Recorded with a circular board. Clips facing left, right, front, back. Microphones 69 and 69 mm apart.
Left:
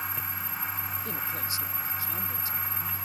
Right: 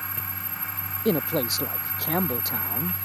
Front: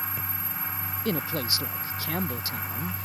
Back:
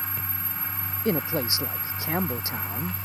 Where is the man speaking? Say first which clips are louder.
Right 12 dB, back 4 dB; 115° right.